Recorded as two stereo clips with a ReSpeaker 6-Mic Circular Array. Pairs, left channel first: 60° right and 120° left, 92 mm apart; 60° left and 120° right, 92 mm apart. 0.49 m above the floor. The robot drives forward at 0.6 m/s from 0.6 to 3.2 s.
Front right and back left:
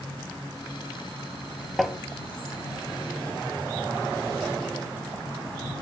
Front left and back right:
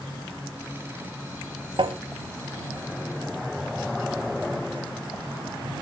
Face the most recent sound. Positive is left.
turn(degrees=-165)